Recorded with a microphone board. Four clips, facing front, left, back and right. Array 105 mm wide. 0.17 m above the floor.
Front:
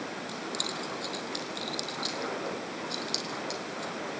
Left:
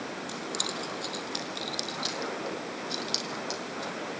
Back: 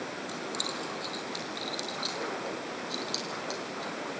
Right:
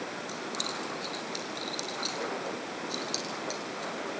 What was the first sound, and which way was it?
Keys jangling, 65° left.